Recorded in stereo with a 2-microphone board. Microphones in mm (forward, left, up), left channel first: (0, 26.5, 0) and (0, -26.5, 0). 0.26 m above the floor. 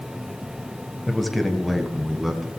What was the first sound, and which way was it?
A man speaking, 5° left (ahead or behind).